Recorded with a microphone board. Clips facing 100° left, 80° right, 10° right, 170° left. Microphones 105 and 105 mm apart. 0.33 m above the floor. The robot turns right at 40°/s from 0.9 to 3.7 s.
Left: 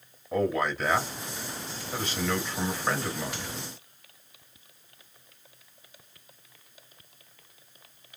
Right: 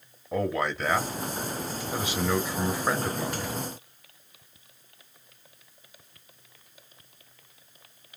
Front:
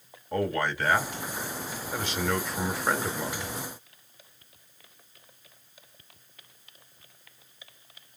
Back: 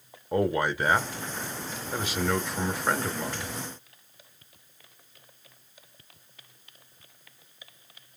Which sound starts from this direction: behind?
A man speaking, at 0.3 s.